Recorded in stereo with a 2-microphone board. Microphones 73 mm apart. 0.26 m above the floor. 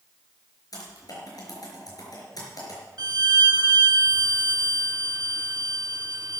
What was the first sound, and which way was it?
Typing on a keyboard, 60° left (ahead or behind).